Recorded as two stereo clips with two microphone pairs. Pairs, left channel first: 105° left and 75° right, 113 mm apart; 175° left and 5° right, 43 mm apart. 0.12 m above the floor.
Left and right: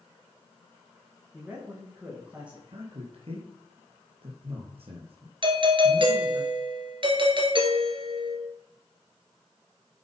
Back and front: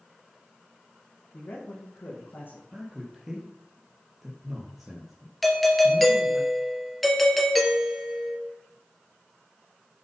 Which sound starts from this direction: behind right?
A man speaking, at 1.3 s.